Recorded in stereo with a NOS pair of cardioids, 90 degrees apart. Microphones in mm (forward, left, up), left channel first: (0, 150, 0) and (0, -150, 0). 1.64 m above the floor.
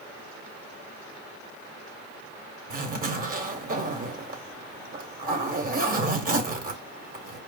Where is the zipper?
30° right, 1.2 m.